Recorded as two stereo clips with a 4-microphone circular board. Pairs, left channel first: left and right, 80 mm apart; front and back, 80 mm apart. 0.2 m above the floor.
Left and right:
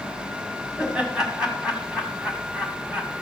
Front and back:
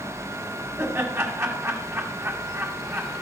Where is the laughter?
160° right, 1.6 m.